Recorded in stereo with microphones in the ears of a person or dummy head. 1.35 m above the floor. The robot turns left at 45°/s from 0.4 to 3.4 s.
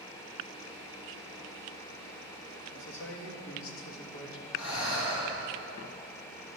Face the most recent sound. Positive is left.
turn(degrees=65)  # may be behind; listen again after turning